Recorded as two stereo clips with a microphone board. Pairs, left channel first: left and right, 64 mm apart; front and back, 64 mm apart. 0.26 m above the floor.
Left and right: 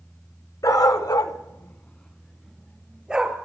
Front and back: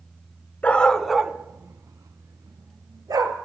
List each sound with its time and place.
0.6 s a dog barking: 70° left, 0.9 m; by 3.4 s 165° right, 1.7 m